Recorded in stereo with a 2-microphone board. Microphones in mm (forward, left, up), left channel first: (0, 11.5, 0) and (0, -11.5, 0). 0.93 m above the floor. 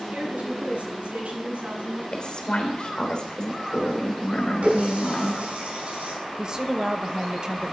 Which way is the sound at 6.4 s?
35° right (ahead or behind).